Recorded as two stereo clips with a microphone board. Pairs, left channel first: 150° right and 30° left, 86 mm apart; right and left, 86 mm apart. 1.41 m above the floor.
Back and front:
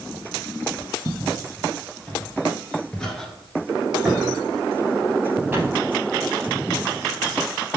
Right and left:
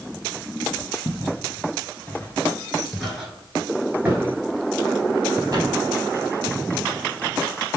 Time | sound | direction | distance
1.1 | footsteps | 115° right | 1.7 m